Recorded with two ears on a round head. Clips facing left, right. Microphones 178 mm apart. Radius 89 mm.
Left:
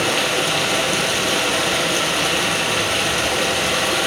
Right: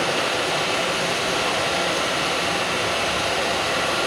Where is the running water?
65° left (ahead or behind), 3.5 m.